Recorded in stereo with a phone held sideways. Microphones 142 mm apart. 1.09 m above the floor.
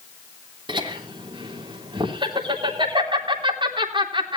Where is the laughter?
35° right (ahead or behind), 3.5 m.